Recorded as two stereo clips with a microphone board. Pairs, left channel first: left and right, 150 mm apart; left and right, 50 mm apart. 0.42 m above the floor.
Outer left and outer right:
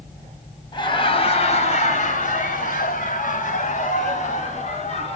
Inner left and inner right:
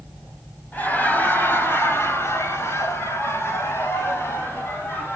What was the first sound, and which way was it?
Laughter, 30° left (ahead or behind).